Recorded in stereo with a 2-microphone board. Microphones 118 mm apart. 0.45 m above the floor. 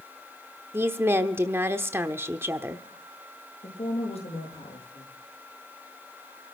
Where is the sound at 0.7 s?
20° right (ahead or behind), 1.0 m.